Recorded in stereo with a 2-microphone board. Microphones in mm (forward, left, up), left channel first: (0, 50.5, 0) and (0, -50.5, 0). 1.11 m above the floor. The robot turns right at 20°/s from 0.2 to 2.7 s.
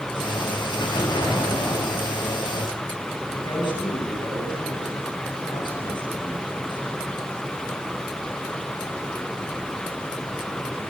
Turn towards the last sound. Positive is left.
turn(degrees=50)  # may be behind; listen again after turning